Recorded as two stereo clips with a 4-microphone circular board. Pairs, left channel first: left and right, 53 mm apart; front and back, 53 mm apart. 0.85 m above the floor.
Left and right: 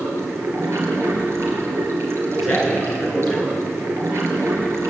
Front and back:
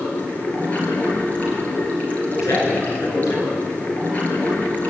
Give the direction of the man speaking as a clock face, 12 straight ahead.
12 o'clock.